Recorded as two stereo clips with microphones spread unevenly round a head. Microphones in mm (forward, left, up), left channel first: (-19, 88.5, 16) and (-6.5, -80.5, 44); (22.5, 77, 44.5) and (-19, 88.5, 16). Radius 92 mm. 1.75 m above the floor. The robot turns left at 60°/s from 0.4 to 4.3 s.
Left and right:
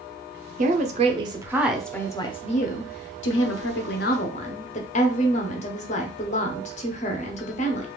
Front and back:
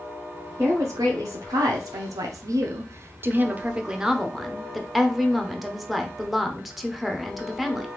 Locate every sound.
0.6 s a woman speaking: 95° right, 0.6 m; by 7.9 s 40° left, 0.6 m